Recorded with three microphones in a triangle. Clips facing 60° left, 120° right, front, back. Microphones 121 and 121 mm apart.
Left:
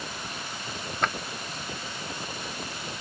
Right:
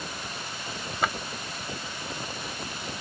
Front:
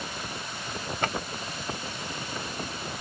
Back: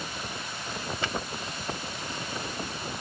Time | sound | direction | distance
1.0 | a drawer | 35° right | ?